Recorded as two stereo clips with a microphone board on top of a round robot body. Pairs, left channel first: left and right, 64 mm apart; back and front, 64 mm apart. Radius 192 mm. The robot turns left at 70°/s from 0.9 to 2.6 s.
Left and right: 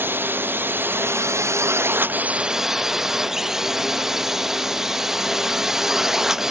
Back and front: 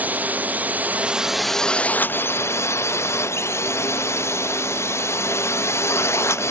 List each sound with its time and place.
0.0 s a drone: 55° right; by 6.5 s 170° right